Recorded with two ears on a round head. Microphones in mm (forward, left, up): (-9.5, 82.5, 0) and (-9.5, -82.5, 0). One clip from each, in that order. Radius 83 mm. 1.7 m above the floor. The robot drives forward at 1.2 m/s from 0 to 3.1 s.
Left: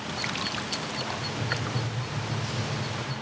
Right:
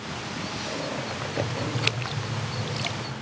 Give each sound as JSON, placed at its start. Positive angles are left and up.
{"t": 1.1, "sound": "writing", "side_deg": -15, "distance_m": 1.3}